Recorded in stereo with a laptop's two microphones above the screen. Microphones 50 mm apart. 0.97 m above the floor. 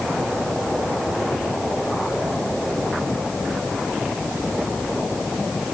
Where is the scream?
I don't hear a scream.